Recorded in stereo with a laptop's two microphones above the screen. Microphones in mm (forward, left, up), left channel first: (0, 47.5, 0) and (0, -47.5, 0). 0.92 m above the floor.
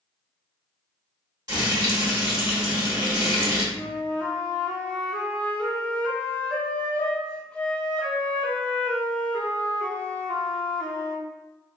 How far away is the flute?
About 0.6 m.